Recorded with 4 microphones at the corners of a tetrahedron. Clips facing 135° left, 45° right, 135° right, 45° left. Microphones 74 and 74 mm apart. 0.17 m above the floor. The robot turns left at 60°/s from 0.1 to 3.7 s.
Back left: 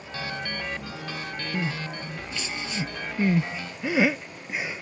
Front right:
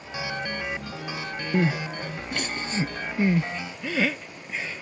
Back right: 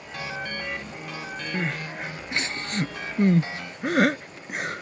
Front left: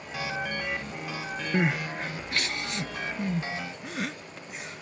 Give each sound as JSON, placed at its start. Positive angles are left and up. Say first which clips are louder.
{"t": 1.5, "sound": "crying", "louder": "front right 7 dB, front left 4 dB", "azimuth_deg": -20}